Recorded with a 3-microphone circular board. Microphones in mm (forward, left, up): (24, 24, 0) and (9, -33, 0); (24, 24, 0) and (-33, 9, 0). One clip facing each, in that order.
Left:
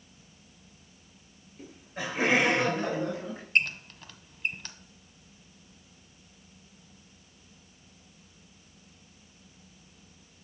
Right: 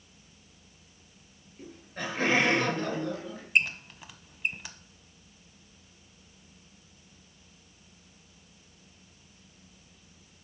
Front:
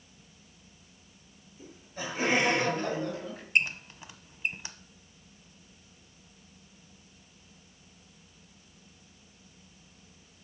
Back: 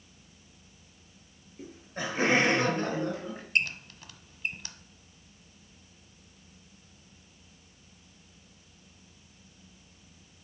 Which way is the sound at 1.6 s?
165° left.